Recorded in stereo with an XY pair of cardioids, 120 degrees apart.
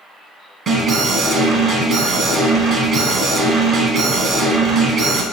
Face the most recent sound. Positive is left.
turn(degrees=-45)